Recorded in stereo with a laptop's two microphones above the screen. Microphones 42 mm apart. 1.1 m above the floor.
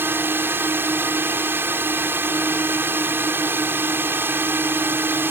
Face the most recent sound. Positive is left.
turn(degrees=-60)  # may be behind; listen again after turning